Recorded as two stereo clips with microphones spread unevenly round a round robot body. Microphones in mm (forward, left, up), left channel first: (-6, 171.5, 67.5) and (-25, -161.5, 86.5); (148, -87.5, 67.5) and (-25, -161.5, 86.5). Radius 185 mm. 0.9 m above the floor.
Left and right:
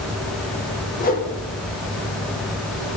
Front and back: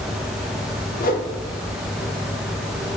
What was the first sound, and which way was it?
A whoosh, 30° left.